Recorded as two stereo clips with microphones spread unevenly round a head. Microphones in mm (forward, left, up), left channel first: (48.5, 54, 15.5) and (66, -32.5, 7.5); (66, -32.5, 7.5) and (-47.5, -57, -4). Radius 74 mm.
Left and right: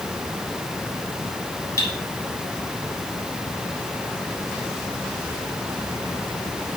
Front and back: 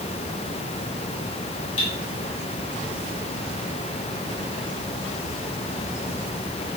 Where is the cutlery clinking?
50° left, 5 m.